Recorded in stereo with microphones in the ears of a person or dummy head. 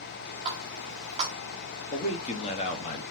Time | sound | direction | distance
0.5 | a running tap | 30° right (ahead or behind) | 1.3 m
1.9 | a man speaking | 35° left (ahead or behind) | 0.9 m